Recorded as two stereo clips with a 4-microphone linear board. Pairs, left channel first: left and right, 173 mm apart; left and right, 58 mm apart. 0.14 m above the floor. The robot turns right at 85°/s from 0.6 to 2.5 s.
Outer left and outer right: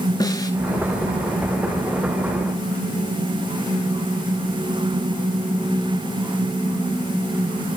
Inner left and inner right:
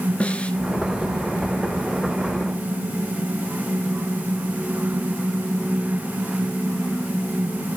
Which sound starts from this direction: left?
A snare drum, at 0.2 s.